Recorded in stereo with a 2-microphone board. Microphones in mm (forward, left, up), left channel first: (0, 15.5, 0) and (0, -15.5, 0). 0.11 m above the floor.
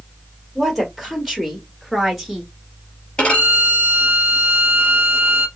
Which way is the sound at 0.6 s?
5° left (ahead or behind).